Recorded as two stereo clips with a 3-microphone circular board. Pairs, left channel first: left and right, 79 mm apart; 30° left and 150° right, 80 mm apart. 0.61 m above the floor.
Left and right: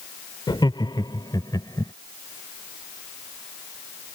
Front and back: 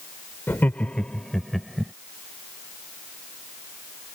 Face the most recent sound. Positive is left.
turn(degrees=125)